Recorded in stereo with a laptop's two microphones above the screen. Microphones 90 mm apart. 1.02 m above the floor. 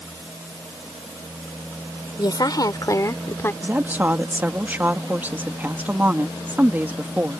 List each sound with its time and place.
2.2 s a woman speaking: 50° left (ahead or behind); by 3.5 s 25° left (ahead or behind)
3.6 s a woman speaking: 20° right (ahead or behind)